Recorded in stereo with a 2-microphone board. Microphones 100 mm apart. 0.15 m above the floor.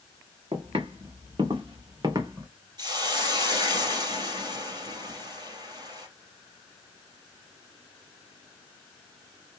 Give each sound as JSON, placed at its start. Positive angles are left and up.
{"t": 0.5, "sound": "footsteps", "side_deg": -65, "distance_m": 2.0}
{"t": 2.8, "sound": "a hiss", "side_deg": -45, "distance_m": 2.0}